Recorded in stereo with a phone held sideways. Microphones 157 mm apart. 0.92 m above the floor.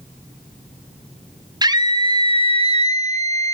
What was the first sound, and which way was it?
A scream, 25° right (ahead or behind).